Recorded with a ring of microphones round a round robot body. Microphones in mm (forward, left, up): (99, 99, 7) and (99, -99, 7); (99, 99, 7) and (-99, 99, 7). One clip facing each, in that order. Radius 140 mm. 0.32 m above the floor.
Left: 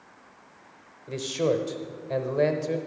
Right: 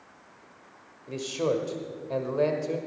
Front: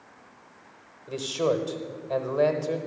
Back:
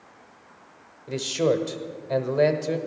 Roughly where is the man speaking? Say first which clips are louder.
Left 2 dB, back 3 dB; behind left.